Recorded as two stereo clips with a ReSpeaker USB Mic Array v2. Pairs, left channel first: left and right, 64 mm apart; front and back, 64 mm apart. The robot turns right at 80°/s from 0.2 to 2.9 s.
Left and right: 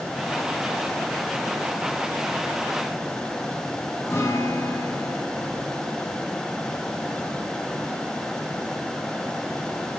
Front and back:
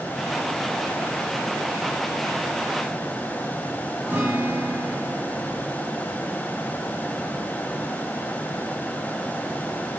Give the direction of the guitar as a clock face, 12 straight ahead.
8 o'clock.